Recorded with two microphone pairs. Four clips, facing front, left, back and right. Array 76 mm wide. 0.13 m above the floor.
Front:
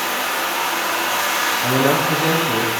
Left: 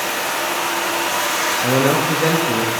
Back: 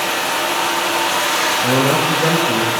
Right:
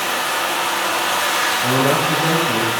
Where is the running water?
155° left, 3 m.